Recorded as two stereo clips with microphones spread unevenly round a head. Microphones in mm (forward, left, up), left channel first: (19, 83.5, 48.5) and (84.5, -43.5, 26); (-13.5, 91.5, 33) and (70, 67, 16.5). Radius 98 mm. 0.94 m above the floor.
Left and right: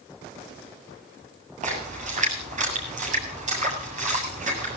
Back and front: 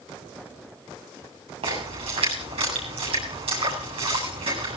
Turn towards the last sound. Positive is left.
turn(degrees=-30)